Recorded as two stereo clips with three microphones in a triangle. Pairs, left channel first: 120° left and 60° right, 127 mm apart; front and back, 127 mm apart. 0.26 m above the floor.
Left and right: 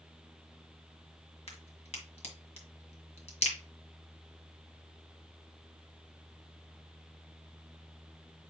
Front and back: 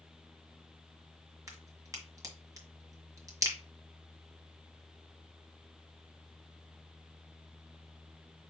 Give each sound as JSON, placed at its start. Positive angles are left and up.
{"t": 1.5, "sound": "a crack", "azimuth_deg": 125, "distance_m": 1.6}